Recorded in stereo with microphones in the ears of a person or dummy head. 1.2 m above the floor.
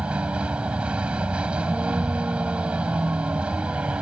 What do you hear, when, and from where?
0.0 s a vehicle: 10° right (ahead or behind)